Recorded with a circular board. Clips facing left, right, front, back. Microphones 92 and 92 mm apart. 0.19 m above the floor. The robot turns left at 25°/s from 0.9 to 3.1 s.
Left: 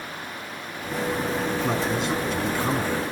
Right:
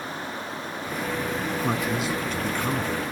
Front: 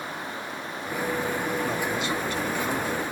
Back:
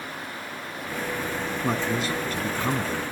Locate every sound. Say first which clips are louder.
1.6 s a man speaking: left 1 dB, back 1 dB; 165° right, 1.4 m; by 3.0 s 160° left, 1.4 m